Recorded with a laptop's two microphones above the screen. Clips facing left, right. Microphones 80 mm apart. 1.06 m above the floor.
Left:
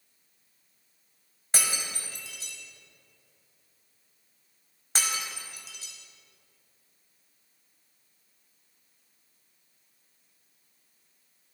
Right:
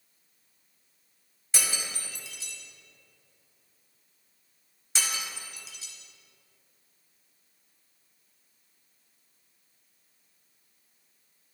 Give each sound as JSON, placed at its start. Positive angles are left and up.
{"t": 1.5, "sound": "breaking glass", "side_deg": 50, "distance_m": 1.3}